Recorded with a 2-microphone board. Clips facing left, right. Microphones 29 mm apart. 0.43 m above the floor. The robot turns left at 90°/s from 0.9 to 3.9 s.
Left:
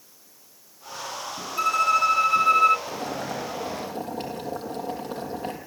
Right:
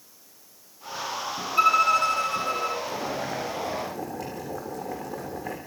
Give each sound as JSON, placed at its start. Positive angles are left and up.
{"t": 1.6, "sound": "a violin", "azimuth_deg": -150, "distance_m": 0.6}
{"t": 2.9, "sound": "boiling", "azimuth_deg": 140, "distance_m": 8.0}